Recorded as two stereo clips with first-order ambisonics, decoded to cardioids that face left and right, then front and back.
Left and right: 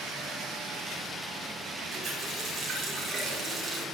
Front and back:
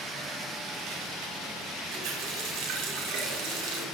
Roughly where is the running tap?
Behind.